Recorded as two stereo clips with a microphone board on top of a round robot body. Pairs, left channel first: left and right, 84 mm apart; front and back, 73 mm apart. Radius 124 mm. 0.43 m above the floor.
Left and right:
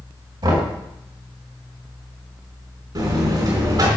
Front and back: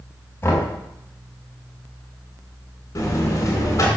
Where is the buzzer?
45° right, 3.5 m.